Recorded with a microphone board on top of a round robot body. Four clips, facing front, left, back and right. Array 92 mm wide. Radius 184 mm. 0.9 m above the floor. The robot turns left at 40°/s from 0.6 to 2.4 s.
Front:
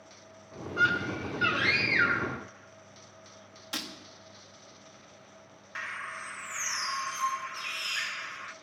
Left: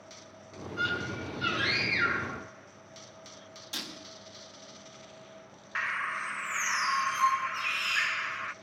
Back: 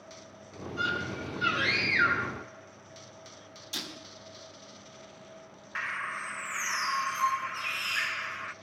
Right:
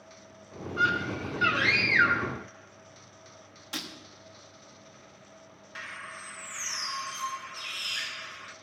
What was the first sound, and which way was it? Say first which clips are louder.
A scream: right 5 dB, front 5 dB; 35° right.